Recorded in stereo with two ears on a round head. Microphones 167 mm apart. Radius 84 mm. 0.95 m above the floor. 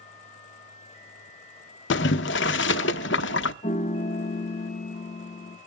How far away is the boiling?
About 0.7 m.